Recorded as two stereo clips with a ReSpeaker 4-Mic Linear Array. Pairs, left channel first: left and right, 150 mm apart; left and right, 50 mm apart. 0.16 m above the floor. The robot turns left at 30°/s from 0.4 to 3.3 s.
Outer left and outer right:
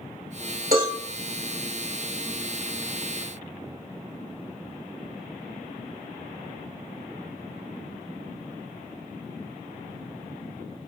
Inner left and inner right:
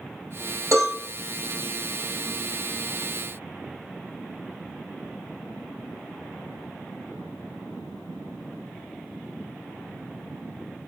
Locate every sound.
0.7 s a cowbell: 70° right (ahead or behind), 2.5 m; by 1.0 s 75° right (ahead or behind), 2.5 m